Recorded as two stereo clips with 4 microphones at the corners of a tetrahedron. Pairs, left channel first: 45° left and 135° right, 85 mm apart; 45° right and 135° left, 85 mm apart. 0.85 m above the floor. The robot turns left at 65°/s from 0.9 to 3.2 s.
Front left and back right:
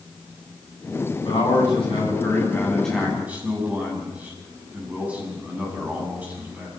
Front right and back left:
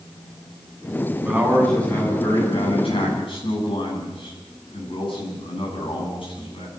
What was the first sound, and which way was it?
A man speaking, 65° left.